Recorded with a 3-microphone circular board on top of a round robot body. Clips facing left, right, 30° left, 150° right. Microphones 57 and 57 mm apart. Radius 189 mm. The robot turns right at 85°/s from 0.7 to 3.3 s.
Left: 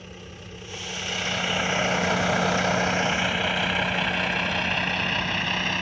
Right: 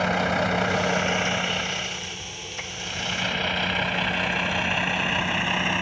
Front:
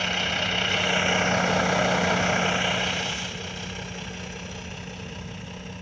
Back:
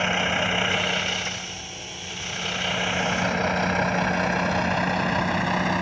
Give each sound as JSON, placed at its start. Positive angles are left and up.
{"t": 0.0, "sound": "a vehicle", "azimuth_deg": -80}